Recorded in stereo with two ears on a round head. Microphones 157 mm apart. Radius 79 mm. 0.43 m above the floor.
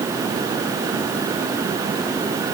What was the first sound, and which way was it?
Only background noise.